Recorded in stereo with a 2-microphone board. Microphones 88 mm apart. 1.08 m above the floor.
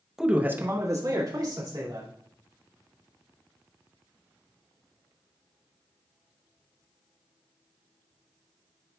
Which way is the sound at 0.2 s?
5° right (ahead or behind).